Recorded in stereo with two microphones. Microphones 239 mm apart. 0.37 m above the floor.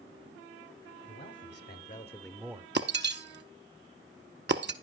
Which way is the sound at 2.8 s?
50° right (ahead or behind).